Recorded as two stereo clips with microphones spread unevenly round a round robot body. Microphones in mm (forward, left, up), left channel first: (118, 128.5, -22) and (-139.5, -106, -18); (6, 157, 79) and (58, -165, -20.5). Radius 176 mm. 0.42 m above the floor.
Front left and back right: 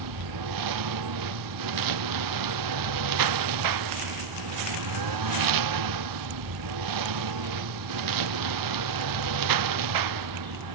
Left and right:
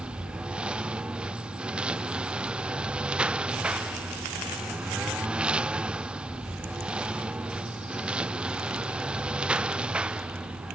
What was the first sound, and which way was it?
A lawn mower, 170° right.